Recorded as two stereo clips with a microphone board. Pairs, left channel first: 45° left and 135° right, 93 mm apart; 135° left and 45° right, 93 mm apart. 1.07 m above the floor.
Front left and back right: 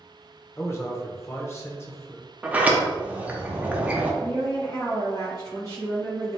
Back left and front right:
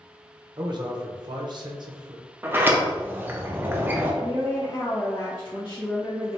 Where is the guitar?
No guitar in this recording.